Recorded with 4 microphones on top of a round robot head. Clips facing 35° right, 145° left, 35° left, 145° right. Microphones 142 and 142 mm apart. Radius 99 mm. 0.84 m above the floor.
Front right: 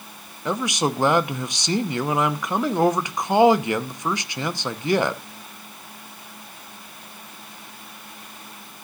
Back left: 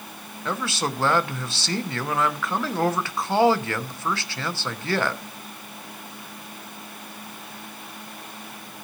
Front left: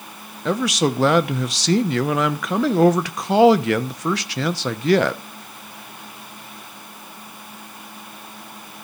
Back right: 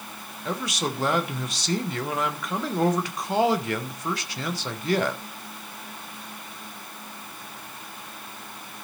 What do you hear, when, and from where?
0.5 s a man speaking: 35° left, 0.9 m